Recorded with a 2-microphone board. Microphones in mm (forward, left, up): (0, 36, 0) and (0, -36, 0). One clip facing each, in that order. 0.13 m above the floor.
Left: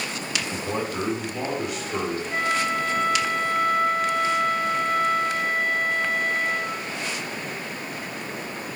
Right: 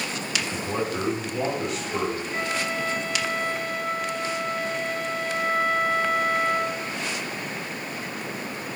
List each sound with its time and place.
0.5 s a man speaking: 5° left (ahead or behind), 1.5 m; by 2.2 s 15° left (ahead or behind), 1.6 m
2.3 s a flute: 55° left (ahead or behind), 0.6 m